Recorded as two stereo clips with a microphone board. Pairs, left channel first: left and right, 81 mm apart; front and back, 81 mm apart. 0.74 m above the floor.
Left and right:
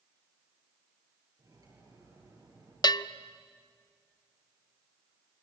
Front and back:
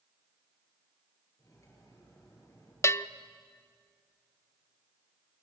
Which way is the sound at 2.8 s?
55° left.